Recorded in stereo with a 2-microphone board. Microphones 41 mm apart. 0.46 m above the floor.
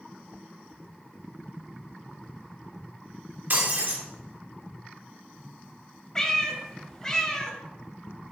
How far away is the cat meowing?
About 0.8 m.